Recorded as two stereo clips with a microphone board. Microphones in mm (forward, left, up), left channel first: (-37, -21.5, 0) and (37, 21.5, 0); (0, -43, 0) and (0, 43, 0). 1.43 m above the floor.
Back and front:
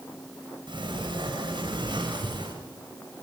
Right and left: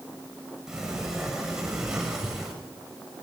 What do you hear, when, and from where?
0.7 s a sliding door: 5° left, 6 m